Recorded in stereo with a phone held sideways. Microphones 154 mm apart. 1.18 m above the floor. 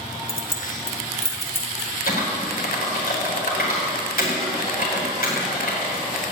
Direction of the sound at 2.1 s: 75° left (ahead or behind).